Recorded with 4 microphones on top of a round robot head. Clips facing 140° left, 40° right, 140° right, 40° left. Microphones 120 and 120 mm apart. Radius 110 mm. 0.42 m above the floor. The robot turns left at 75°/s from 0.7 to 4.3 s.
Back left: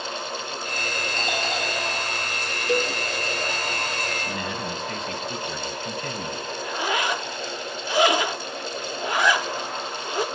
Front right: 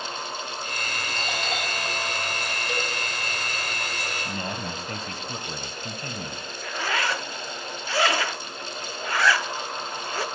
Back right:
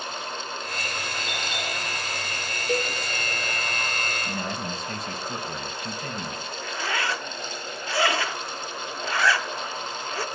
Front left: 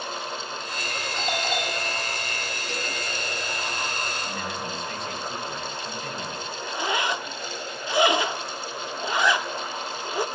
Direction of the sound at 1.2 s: 105° left.